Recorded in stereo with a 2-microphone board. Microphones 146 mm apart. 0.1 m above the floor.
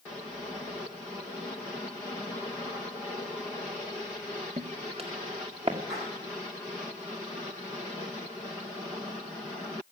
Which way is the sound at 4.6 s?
45° right (ahead or behind).